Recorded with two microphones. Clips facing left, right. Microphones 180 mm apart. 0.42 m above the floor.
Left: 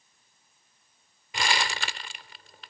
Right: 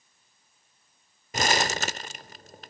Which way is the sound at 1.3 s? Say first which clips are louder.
Right 4 dB; 40° right (ahead or behind).